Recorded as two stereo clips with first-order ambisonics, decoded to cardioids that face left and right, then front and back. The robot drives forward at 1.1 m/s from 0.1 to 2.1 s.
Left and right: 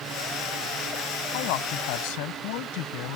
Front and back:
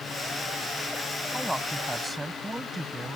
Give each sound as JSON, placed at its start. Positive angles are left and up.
{"t": 1.3, "sound": "a man speaking", "azimuth_deg": 90}